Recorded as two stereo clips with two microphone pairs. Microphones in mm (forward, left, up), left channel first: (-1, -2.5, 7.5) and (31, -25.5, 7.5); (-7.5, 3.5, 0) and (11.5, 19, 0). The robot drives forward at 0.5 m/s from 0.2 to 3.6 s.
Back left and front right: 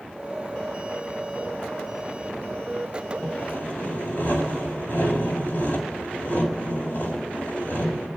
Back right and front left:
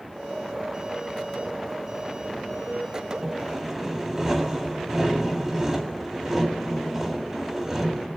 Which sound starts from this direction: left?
Sawing, at 3.2 s.